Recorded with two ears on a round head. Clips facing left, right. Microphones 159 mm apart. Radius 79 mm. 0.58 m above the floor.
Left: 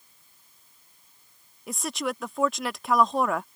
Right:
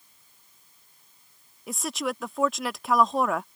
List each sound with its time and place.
1.7 s a woman speaking: centre (ahead or behind)